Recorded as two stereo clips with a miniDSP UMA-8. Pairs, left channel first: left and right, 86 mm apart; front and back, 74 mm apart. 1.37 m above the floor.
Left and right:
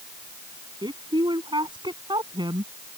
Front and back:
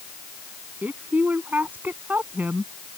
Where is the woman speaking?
115° right.